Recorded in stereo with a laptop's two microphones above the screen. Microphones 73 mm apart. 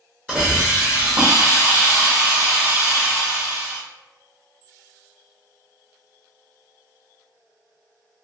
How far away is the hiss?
About 0.9 m.